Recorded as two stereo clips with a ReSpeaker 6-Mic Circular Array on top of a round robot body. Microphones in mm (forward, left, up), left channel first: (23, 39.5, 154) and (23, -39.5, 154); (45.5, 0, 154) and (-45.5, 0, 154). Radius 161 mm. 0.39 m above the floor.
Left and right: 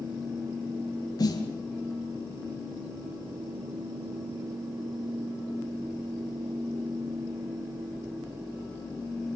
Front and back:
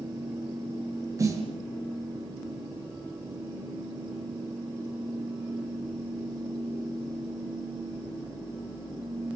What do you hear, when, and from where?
1.2 s a snare drum: 125° left, 5.5 m